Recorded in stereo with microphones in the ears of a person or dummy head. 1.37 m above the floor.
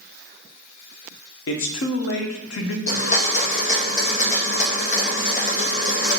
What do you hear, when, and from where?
1.5 s a man speaking: 75° left (ahead or behind), 0.6 m
2.9 s a blender: 45° left (ahead or behind), 1.0 m